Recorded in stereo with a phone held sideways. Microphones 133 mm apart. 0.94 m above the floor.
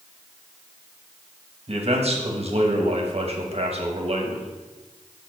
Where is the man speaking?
45° right (ahead or behind), 1.2 m.